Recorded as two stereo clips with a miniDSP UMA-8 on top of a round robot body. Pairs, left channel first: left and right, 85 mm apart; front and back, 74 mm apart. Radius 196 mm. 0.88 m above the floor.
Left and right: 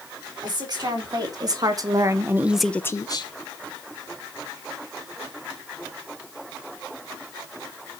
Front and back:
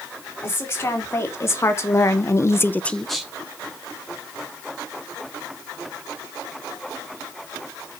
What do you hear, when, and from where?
0.4 s a woman speaking: 55° right, 4 m; by 3.3 s 95° left, 1.3 m